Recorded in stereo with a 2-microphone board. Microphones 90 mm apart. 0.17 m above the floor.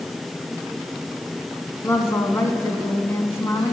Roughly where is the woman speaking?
Left.